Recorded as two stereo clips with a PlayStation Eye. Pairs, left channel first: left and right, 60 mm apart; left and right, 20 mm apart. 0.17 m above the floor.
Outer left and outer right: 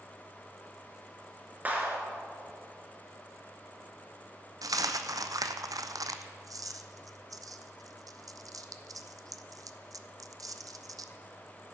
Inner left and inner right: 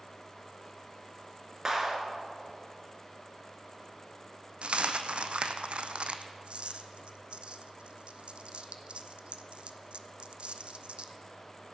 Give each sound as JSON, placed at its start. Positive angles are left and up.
{"t": 1.6, "sound": "a clap", "side_deg": -25, "distance_m": 2.0}
{"t": 4.6, "sound": "a dropped coin", "side_deg": -75, "distance_m": 0.6}